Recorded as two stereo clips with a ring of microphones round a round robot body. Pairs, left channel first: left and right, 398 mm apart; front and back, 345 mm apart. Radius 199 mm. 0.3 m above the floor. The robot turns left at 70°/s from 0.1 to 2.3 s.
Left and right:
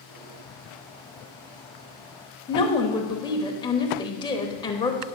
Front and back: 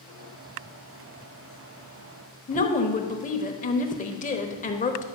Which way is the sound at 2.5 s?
30° left.